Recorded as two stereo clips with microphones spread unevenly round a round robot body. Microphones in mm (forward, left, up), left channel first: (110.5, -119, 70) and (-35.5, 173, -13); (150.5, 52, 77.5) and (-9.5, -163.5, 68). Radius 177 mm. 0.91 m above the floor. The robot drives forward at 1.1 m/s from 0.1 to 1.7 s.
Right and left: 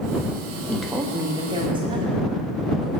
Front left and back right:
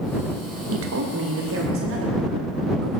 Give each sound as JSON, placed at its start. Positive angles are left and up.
{"t": 0.7, "sound": "a woman speaking", "azimuth_deg": -155, "distance_m": 0.8}